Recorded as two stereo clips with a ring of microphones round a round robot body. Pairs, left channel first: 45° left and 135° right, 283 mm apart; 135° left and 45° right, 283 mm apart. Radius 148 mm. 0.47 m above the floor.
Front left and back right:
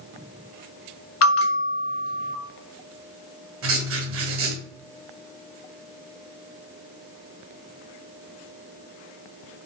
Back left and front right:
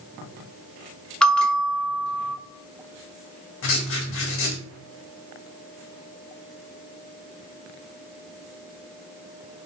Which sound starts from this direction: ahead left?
A bell, at 1.2 s.